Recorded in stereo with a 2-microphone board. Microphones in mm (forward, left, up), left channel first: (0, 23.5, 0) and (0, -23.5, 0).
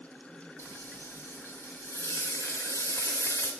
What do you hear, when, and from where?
0.6 s frying: 70° left (ahead or behind), 1.3 m